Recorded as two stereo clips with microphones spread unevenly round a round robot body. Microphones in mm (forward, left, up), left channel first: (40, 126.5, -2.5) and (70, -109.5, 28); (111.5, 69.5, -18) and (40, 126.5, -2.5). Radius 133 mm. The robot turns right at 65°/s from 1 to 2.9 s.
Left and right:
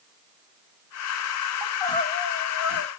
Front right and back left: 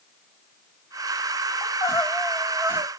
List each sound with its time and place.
1.6 s crying: 5° left, 2.5 m; by 2.9 s 85° left, 2.5 m